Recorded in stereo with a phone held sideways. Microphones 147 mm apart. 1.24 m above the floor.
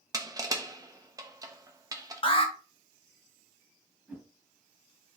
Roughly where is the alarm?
Left.